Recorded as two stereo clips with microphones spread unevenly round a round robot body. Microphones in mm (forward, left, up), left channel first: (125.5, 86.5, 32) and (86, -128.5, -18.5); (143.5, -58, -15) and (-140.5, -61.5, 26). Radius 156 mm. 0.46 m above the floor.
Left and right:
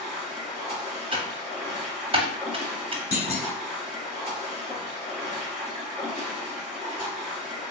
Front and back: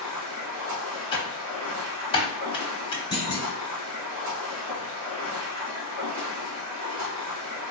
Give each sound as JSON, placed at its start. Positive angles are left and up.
{"t": 0.0, "sound": "running water", "azimuth_deg": -175, "distance_m": 1.6}
{"t": 1.1, "sound": "typing on a keyboard", "azimuth_deg": -60, "distance_m": 0.8}
{"t": 3.1, "sound": "a clunk", "azimuth_deg": 50, "distance_m": 0.9}